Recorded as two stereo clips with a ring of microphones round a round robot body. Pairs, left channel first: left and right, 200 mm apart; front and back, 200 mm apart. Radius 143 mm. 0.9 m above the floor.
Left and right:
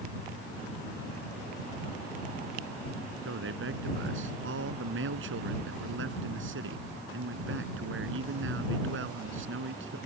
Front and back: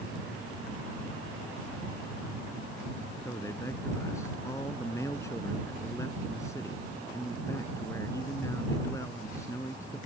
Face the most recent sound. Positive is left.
turn(degrees=-80)